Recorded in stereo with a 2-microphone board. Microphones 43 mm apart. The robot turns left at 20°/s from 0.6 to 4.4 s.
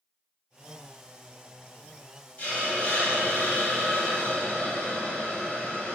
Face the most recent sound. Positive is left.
turn(degrees=70)